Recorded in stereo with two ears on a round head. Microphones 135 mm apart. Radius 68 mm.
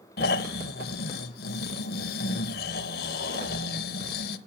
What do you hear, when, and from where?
0.2 s snoring: 65° left (ahead or behind), 0.7 m